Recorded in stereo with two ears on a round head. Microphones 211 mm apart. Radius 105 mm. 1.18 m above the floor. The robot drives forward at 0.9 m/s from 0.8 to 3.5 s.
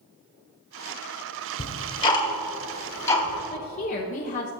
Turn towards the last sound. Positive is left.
turn(degrees=30)  # may be behind; listen again after turning